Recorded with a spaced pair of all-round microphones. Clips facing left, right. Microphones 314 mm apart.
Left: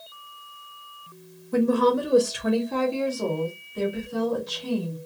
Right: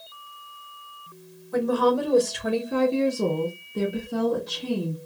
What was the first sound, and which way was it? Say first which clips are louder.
A woman speaking: left 1 dB; 35° left (ahead or behind).